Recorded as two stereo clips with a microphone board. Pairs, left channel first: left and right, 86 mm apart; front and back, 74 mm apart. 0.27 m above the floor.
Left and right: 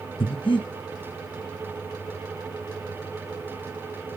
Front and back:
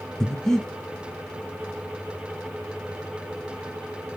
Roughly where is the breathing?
Left.